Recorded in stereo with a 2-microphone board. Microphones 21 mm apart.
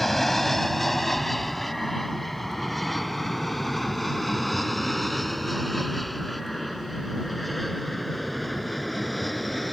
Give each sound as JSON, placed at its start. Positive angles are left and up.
{"t": 0.0, "sound": "an aircraft", "side_deg": 10}